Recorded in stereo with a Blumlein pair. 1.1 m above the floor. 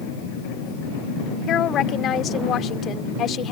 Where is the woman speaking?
30° left.